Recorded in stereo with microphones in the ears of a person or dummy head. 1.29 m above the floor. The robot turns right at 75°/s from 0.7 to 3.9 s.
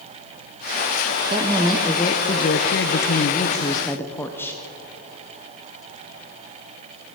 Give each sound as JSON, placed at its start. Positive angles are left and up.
{"t": 1.3, "sound": "a woman speaking", "azimuth_deg": -25, "distance_m": 0.7}